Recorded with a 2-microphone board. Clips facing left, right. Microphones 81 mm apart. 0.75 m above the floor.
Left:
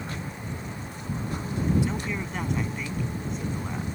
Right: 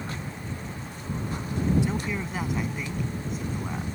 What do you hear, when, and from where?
1.8 s a man speaking: 5° right (ahead or behind)